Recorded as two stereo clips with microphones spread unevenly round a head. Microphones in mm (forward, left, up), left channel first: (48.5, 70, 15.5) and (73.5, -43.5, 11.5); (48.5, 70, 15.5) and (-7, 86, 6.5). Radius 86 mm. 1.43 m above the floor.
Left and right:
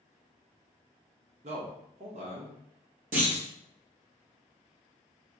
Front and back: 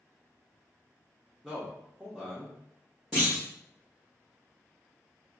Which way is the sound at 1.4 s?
110° right.